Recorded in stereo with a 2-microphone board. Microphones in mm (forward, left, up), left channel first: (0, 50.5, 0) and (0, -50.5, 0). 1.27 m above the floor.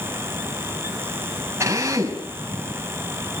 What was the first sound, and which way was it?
A drill, 25° right (ahead or behind).